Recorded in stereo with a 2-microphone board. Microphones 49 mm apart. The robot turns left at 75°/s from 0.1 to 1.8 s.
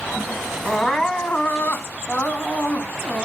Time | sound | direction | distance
0.7 | crying | 175° right | 1.5 m